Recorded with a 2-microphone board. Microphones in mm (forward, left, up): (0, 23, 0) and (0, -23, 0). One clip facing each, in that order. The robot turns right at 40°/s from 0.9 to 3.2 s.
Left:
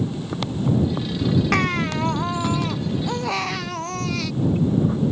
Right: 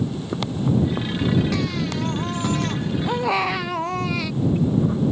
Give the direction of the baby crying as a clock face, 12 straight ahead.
8 o'clock.